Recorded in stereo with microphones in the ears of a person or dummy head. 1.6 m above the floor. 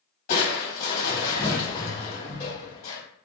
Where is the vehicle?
I don't hear a vehicle.